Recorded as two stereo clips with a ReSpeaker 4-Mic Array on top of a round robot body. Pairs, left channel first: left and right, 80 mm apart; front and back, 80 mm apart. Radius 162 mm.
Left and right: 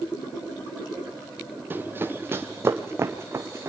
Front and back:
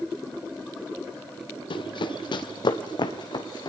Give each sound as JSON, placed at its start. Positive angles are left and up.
{"t": 1.7, "sound": "running footsteps", "azimuth_deg": -25, "distance_m": 1.0}